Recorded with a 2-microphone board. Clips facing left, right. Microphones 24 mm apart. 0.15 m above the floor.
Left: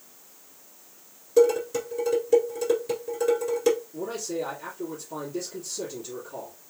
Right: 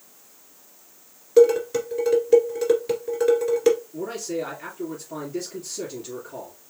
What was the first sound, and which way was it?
Dishes clattering, 35° right (ahead or behind).